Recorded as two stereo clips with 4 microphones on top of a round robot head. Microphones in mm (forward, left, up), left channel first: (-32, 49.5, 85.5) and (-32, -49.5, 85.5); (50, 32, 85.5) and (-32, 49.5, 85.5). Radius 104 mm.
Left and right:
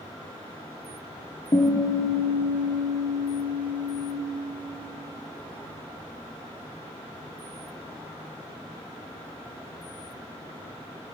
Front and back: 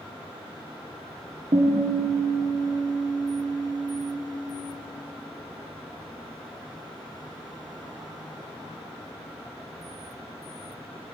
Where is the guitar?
140° left, 1.8 m.